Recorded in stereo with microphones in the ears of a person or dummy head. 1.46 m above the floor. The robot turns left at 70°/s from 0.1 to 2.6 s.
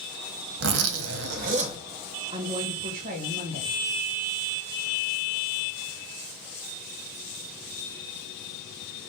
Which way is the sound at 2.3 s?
20° right (ahead or behind).